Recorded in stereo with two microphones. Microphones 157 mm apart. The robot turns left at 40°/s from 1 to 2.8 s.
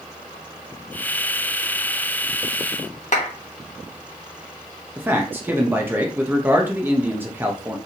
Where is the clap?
50° left (ahead or behind), 1.3 m.